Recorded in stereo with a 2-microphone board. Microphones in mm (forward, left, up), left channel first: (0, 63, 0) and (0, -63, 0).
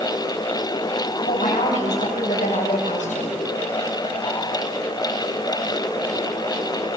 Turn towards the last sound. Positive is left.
turn(degrees=85)